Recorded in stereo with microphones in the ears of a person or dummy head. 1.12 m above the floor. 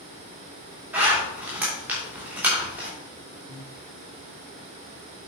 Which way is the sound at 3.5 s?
45° left (ahead or behind).